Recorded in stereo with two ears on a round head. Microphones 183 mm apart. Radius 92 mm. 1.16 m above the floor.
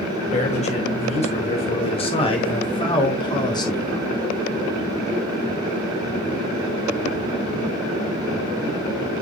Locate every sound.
0.3 s a man speaking: 35° left (ahead or behind), 5.5 m; by 4.1 s 20° left (ahead or behind), 4 m